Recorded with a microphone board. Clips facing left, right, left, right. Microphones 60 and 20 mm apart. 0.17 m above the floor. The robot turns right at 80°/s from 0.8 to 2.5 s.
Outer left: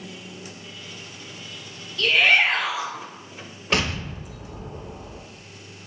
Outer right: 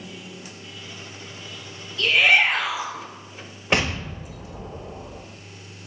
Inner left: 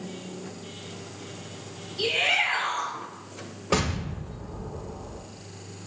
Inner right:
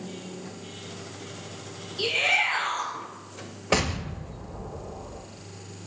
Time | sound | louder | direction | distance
2.0 | a shout | outer right 1 dB, even | straight behind | 1.4 m
3.7 | an explosion | outer right 1 dB, inner right 1 dB | 25° right (ahead or behind) | 0.6 m